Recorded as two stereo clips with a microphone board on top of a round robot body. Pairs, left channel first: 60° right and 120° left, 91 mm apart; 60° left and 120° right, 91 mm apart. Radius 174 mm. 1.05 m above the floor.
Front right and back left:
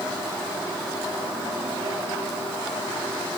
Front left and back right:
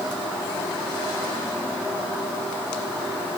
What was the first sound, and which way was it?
Only background noise.